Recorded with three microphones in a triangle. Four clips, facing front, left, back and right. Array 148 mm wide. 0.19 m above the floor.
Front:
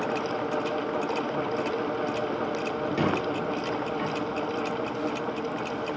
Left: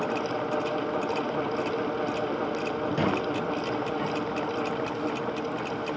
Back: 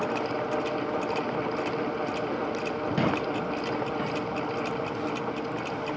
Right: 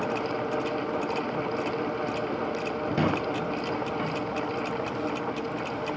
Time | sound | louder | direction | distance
3.0 | a squeak | right 1 dB, even | 120° right | 1.4 m